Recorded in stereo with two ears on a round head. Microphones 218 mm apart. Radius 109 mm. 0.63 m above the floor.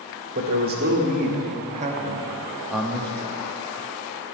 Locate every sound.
0.3 s a man speaking: 40° right (ahead or behind), 1.4 m; by 3.4 s 15° left (ahead or behind), 0.8 m